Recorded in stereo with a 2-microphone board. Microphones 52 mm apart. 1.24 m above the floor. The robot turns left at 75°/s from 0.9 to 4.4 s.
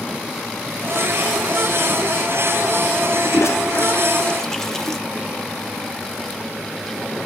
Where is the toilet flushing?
60° left (ahead or behind), 1.0 m; by 5.0 s 10° left (ahead or behind), 1.0 m.